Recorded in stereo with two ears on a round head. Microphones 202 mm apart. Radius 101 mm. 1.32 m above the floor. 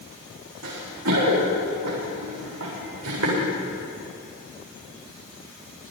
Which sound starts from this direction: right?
Running footsteps, at 0.6 s.